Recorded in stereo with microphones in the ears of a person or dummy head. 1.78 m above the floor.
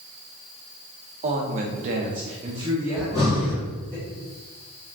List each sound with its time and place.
1.2 s a woman speaking: 40° right (ahead or behind), 0.7 m; by 4.0 s 10° left (ahead or behind), 1.1 m
3.0 s breathing: 25° left (ahead or behind), 1.4 m